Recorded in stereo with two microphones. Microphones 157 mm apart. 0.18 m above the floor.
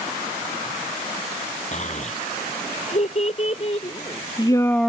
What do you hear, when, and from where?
1.7 s a child speaking: 50° left (ahead or behind); by 4.9 s centre (ahead or behind)